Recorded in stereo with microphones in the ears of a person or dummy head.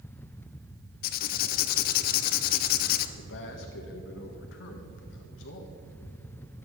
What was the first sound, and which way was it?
Writing, 45° left (ahead or behind).